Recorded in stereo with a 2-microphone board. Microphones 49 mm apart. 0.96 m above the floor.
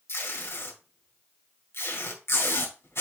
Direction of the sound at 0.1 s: 60° left (ahead or behind).